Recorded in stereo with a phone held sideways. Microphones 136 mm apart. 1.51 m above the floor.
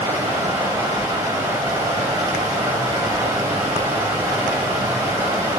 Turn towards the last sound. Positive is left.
turn(degrees=-20)  # may be behind; listen again after turning